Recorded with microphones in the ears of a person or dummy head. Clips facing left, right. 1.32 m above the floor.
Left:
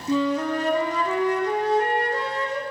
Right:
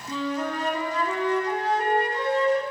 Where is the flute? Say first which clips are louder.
Left 6 dB; 60° left (ahead or behind), 0.7 m.